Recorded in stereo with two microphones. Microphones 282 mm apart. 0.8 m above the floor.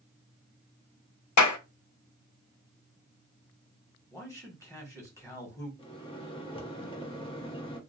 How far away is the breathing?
No breathing in this recording.